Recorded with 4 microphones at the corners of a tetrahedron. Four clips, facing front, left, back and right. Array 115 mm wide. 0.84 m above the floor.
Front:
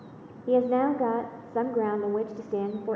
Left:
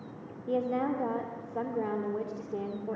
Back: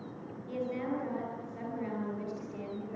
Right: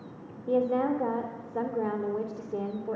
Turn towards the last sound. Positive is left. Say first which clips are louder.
# right 4 dB, front 12 dB
turn(degrees=-5)